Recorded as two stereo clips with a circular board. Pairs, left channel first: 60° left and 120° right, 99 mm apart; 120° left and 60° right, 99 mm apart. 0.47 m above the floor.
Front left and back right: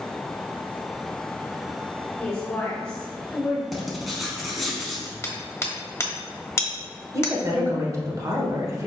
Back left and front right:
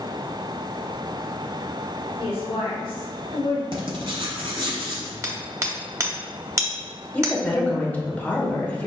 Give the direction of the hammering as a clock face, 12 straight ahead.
12 o'clock.